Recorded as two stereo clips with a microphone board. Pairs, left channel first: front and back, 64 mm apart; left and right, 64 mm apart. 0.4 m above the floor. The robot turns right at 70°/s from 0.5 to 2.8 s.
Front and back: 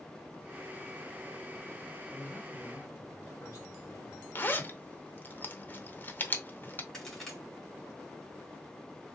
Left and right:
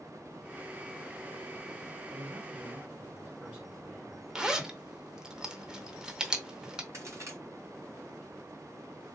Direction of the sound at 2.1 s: 70° right.